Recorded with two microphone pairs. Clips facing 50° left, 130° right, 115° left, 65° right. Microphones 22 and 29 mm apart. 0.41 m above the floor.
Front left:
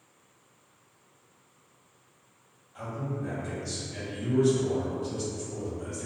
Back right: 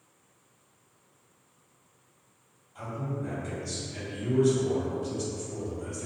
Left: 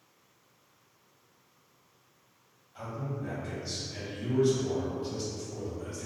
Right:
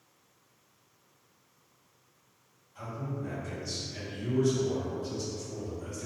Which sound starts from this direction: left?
A man speaking, at 2.8 s.